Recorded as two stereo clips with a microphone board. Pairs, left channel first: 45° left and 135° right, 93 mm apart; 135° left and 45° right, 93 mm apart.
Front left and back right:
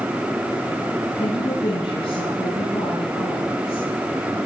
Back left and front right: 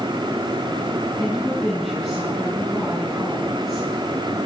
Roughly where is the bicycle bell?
No bicycle bell in this recording.